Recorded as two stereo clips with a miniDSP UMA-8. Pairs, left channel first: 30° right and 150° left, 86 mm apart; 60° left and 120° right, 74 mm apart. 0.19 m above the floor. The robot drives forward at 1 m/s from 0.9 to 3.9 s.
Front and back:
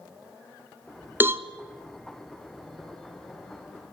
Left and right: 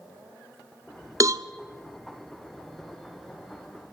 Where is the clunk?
No clunk in this recording.